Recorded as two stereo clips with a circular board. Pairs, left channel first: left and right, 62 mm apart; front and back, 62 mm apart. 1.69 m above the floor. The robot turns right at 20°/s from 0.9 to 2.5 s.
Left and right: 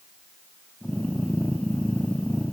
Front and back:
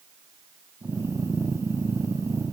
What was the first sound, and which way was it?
Only background noise.